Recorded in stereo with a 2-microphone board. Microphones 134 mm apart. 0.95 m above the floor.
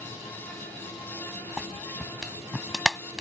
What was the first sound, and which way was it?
A clap, 5° right (ahead or behind).